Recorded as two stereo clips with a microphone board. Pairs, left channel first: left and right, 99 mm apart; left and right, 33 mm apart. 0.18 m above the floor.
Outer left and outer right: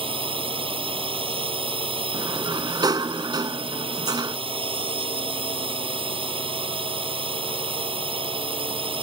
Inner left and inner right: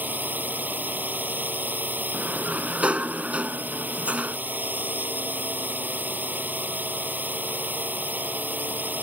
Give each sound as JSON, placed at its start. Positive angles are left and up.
{"t": 0.0, "sound": "a drone", "side_deg": -65}
{"t": 2.1, "sound": "a sliding door", "side_deg": -45}